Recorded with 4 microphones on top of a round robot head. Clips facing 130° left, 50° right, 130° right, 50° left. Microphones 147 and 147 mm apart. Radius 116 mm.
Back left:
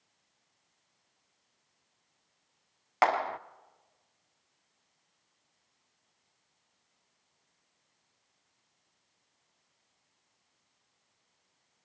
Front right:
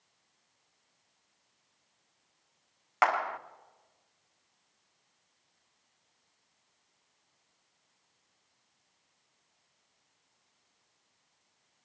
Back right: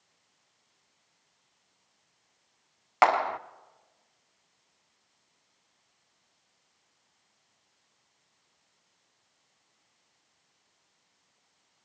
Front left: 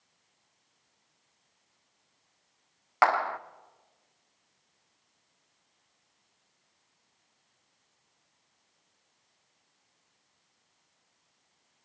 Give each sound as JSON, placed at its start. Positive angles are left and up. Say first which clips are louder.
{"t": 3.0, "sound": "a clap", "louder": "back left 2 dB, back right 2 dB", "azimuth_deg": 170, "distance_m": 0.7}